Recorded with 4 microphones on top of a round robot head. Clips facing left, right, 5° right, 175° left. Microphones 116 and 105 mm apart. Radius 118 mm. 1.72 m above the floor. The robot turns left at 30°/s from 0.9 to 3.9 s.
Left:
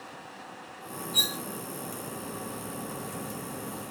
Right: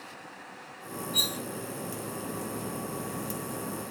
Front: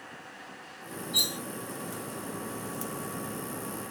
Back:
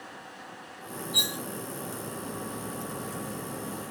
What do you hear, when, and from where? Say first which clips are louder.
1.1 s cutlery clinking: even, back 1 dB; 30° left, 2.5 m; by 1.4 s 25° left, 2.5 m